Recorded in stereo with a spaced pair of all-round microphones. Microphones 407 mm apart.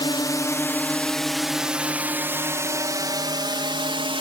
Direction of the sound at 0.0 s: 10° left (ahead or behind).